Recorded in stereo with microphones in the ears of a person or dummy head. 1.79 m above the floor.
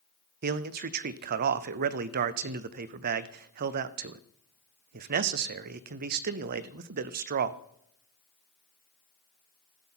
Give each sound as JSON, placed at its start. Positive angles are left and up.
{"t": 0.4, "sound": "a man speaking", "side_deg": -45, "distance_m": 0.6}